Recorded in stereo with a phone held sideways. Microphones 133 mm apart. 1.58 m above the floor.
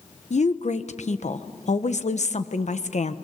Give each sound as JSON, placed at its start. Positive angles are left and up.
{"t": 0.3, "sound": "a woman speaking", "side_deg": 65, "distance_m": 1.1}